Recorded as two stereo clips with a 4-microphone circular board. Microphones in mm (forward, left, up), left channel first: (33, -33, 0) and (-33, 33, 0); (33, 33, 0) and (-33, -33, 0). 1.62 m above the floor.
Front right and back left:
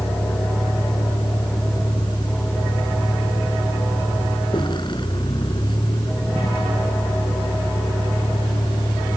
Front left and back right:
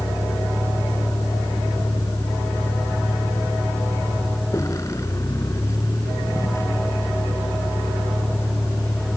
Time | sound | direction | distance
0.0 | a vehicle | 10° right | ?